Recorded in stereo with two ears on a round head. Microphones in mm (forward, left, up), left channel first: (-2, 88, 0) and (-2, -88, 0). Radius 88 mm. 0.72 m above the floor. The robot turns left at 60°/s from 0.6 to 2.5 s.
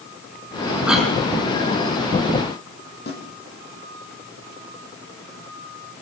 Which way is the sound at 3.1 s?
55° left (ahead or behind).